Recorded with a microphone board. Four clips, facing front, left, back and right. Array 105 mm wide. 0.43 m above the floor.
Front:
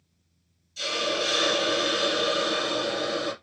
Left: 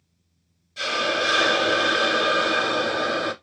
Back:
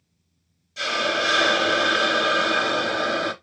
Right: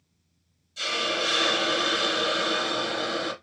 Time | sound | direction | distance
0.8 | a hiss | 145° left | 0.7 m